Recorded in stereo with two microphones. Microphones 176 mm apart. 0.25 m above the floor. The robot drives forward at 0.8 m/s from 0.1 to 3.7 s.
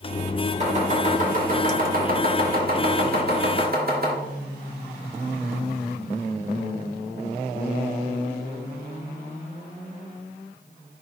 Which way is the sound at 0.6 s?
40° right (ahead or behind).